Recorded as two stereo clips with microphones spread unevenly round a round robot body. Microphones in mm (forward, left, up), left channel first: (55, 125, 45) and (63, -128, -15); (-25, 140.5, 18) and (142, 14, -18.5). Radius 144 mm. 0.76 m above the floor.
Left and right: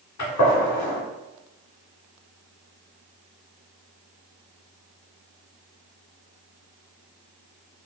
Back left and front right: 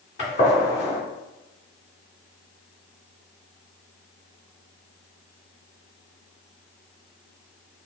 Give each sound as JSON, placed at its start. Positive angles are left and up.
{"t": 0.2, "sound": "a gunshot", "azimuth_deg": 105, "distance_m": 2.0}